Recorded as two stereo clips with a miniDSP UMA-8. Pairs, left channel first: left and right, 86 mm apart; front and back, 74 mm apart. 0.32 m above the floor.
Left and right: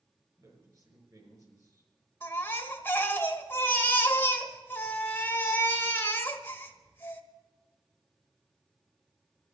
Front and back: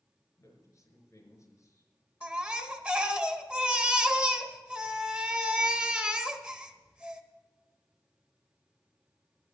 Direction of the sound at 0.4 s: 40° right.